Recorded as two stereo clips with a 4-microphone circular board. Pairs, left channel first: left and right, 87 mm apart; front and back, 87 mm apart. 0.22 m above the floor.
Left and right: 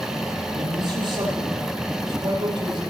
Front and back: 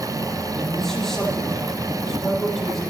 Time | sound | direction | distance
0.5 | a man speaking | 85° right | 7 m